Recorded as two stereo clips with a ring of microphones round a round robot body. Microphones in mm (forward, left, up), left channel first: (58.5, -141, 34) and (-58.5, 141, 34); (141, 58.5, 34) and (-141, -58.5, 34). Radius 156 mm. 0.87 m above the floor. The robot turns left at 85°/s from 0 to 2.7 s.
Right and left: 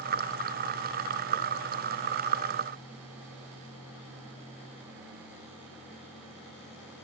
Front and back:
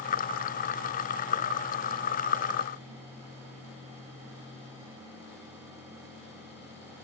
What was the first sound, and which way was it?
Only background noise.